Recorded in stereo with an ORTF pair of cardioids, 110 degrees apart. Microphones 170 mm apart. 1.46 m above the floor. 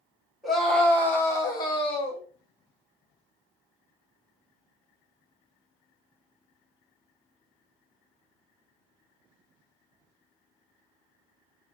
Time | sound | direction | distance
0.4 | a scream | straight ahead | 1.4 m